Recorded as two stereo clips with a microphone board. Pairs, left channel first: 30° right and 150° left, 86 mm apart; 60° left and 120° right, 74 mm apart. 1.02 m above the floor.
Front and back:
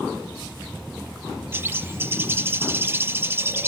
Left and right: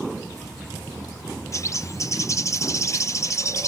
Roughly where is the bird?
Left.